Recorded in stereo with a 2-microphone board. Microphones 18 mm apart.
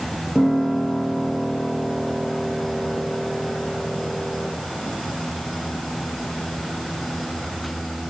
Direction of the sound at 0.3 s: 40° right (ahead or behind).